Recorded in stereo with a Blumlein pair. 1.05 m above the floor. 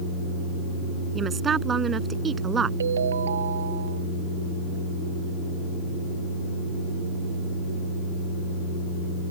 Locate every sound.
1.1 s a woman speaking: 15° right
2.8 s a ringtone: 65° right